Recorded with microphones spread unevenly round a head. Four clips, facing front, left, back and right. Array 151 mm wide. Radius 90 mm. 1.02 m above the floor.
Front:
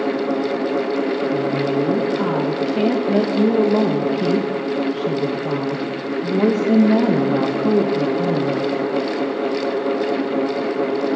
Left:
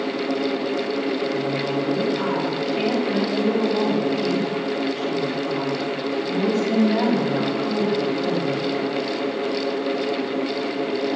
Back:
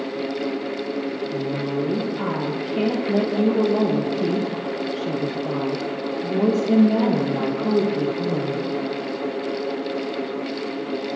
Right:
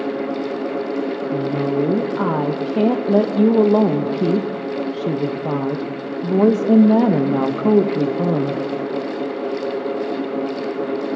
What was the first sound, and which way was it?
A woman speaking, 85° right.